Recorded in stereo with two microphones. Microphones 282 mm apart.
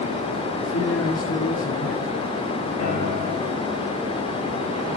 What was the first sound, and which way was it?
A man speaking, 55° left (ahead or behind).